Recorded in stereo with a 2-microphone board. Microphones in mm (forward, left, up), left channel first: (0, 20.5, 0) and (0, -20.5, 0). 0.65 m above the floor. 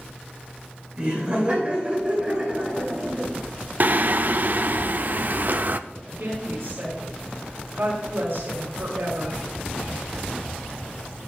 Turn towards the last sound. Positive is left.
turn(degrees=-80)